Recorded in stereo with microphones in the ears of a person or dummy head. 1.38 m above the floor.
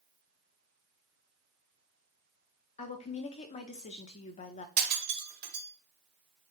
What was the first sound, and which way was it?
A woman speaking, 40° left (ahead or behind).